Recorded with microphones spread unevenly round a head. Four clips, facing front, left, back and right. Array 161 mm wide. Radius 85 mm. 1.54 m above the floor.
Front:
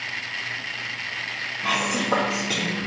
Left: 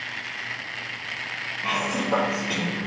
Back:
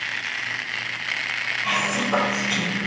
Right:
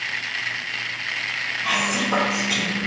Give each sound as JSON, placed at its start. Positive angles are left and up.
{"t": 1.6, "sound": "whispering", "azimuth_deg": 15, "distance_m": 2.5}